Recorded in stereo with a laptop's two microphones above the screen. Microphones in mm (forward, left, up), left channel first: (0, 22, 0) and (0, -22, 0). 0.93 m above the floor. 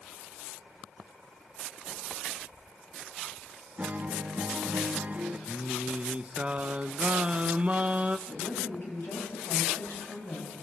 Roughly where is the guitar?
Right.